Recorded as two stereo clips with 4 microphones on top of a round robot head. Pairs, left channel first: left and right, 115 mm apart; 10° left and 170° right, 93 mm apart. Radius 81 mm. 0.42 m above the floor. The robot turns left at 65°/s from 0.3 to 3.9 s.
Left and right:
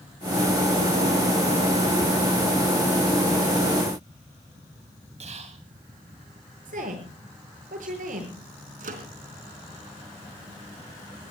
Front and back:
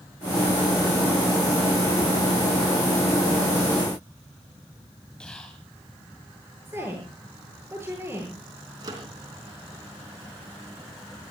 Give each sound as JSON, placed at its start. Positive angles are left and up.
{"t": 5.2, "sound": "whispering", "azimuth_deg": -70, "distance_m": 3.0}
{"t": 6.7, "sound": "a woman speaking", "azimuth_deg": -95, "distance_m": 9.0}
{"t": 8.8, "sound": "a microwave", "azimuth_deg": -110, "distance_m": 3.5}